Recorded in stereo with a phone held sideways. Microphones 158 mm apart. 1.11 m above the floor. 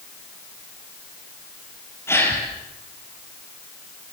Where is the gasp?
15° left (ahead or behind), 6 m.